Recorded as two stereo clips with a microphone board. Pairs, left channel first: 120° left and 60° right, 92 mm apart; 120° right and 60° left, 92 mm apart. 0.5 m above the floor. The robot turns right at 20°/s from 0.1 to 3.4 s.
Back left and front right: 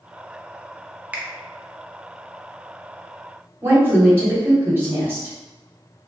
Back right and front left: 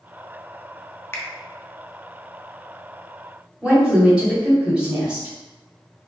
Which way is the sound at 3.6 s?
10° right.